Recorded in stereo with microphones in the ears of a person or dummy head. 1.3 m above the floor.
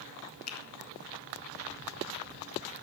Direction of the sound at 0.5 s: 85° left.